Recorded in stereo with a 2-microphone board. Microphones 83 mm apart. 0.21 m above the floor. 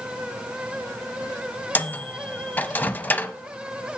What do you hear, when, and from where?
1.8 s a microwave: 20° left (ahead or behind), 0.8 m